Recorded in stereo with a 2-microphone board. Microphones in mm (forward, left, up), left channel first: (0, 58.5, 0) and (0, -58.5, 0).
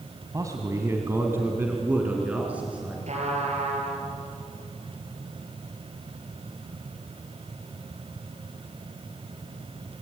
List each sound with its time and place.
0.3 s a man speaking: 30° right (ahead or behind), 2 m; by 3.0 s 10° right (ahead or behind), 4.5 m
3.1 s a trumpet: 65° right (ahead or behind), 5 m